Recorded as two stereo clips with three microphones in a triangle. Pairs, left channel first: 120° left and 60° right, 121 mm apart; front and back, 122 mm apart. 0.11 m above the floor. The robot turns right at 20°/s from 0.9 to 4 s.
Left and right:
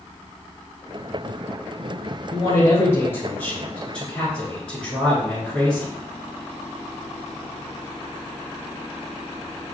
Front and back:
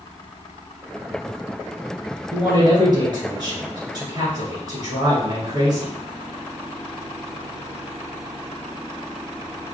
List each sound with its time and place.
2.3 s a man speaking: 160° left, 1.8 m; by 5.9 s 165° right, 1.8 m